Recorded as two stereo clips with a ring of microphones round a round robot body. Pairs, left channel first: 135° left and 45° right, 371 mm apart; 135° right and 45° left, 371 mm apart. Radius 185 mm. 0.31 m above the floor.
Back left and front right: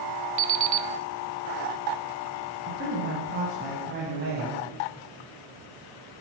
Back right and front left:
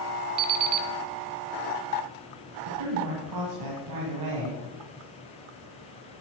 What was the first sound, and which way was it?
An alarm clock, 5° left.